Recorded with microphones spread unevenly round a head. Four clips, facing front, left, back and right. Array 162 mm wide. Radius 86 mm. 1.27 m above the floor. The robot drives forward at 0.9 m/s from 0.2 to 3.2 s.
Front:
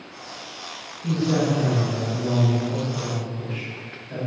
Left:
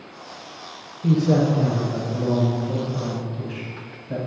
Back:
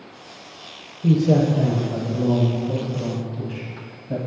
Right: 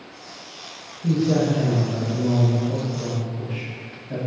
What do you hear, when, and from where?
1.0 s a man speaking: 165° left, 3 m; by 4.2 s 170° left, 5 m